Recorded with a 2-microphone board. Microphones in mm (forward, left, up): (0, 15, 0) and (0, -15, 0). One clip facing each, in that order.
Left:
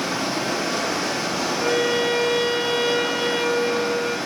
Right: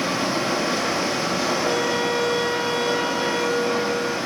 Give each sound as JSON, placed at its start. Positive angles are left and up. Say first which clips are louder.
{"t": 0.0, "sound": "running water", "louder": "right 1 dB", "side_deg": -40, "distance_m": 5.0}
{"t": 1.6, "sound": "a violin", "louder": "left 1 dB", "side_deg": 40, "distance_m": 1.6}